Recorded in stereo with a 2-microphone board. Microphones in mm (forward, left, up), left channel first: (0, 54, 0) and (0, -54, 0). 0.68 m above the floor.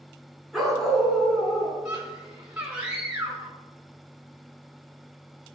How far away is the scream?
About 3.5 m.